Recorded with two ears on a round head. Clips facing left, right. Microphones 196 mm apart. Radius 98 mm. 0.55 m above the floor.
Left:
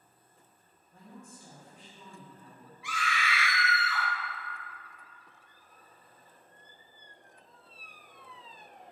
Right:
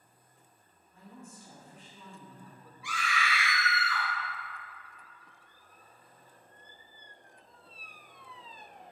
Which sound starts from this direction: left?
A woman speaking, at 0.9 s.